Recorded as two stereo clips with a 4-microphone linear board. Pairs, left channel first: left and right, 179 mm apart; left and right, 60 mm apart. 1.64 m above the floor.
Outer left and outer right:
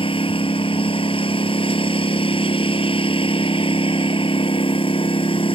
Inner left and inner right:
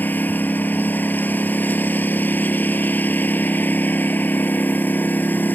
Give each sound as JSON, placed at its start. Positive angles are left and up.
{"t": 0.0, "sound": "a lawn mower", "side_deg": 30}